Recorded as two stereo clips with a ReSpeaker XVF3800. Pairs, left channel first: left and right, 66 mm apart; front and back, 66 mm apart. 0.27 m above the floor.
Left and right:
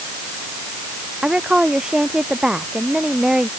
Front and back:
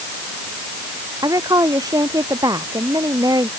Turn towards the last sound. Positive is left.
turn(degrees=-170)